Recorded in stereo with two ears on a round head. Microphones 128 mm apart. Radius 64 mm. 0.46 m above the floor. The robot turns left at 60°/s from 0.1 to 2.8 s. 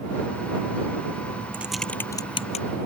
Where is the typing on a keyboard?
15° right (ahead or behind); by 2.6 s 55° left (ahead or behind).